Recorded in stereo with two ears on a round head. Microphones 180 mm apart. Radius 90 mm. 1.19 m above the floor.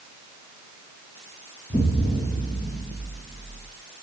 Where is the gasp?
I don't hear a gasp.